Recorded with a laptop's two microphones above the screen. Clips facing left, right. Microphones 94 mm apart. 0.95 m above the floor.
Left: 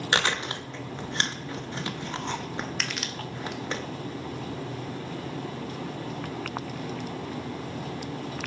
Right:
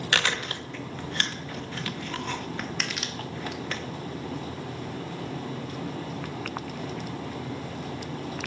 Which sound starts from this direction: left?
Chewing, at 0.1 s.